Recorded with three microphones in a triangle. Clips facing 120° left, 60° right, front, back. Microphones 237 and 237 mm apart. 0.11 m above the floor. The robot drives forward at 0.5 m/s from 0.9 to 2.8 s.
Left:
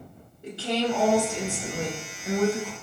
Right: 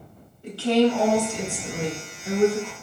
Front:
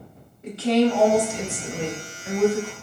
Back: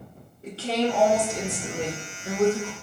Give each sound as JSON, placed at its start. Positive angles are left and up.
{"t": 0.4, "sound": "a woman speaking", "azimuth_deg": 170, "distance_m": 1.6}